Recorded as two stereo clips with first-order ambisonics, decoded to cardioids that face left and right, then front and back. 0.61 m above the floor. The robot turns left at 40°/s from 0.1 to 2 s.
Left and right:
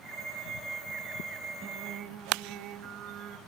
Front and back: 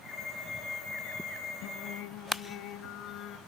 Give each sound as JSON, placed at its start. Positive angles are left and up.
{"t": 1.6, "sound": "singing", "azimuth_deg": -25, "distance_m": 0.9}